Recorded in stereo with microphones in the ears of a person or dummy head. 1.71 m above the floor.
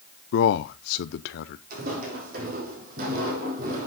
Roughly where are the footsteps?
Right.